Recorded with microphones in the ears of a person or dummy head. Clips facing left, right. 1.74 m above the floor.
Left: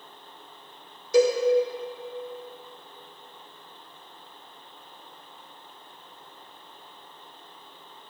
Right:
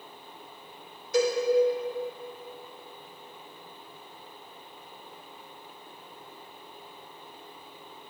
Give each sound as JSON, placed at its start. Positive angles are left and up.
{"t": 1.1, "sound": "a cowbell", "side_deg": 65, "distance_m": 1.4}